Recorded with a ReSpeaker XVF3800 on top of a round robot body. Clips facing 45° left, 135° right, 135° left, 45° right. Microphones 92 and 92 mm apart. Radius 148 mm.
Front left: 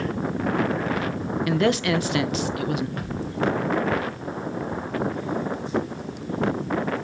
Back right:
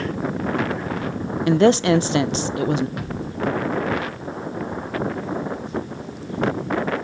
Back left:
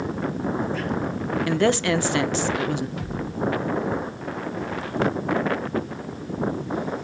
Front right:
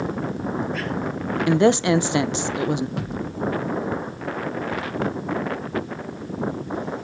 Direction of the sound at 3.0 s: 60° right.